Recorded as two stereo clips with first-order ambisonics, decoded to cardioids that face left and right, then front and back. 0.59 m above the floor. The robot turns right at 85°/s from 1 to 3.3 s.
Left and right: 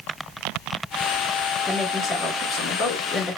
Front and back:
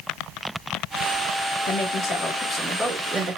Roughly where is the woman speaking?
Ahead.